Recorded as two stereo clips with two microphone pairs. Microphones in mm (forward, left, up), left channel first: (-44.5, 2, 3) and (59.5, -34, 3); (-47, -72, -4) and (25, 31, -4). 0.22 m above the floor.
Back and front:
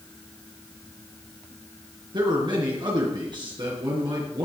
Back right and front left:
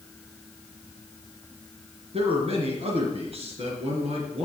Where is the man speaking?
25° left, 4 m.